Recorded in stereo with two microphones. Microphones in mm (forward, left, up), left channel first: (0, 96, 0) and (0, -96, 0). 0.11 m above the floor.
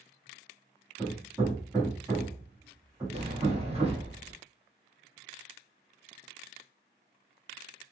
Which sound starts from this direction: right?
A sliding door, at 3.1 s.